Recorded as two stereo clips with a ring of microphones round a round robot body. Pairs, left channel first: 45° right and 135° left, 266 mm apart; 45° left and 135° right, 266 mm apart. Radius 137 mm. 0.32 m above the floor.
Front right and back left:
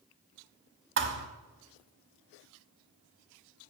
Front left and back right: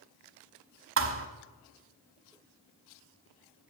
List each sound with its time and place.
1.0 s a thud: 175° right, 0.9 m